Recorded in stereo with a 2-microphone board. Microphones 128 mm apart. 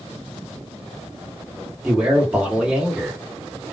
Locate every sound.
1.8 s a man speaking: 10° right (ahead or behind), 1.7 m